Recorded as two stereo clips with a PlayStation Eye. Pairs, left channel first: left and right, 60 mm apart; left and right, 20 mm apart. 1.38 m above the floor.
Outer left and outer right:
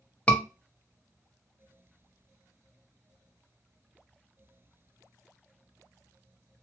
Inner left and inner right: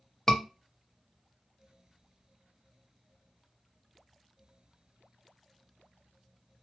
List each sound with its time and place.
0.3 s a scream: 20° left (ahead or behind), 0.7 m